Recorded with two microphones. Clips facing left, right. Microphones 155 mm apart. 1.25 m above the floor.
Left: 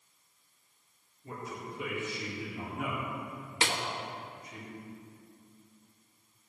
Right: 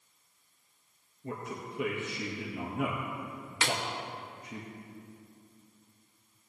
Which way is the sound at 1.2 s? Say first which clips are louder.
Right 2 dB; 75° right (ahead or behind).